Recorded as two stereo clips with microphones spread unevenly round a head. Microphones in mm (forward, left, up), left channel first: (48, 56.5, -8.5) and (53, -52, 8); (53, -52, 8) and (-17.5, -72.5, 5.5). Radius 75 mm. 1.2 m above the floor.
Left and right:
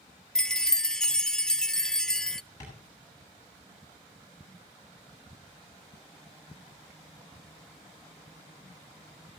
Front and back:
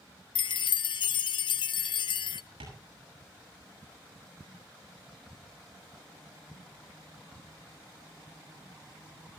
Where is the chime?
5° left, 0.5 m.